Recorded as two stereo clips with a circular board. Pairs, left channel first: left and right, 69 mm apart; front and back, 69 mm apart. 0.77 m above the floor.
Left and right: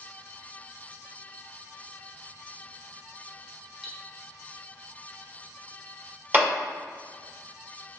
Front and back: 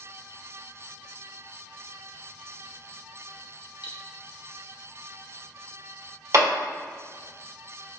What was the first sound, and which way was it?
Cutlery clinking, 10° right.